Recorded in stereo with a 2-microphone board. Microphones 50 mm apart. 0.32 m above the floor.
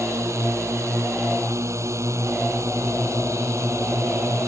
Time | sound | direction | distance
0.0 | a drone | 70° right (ahead or behind) | ?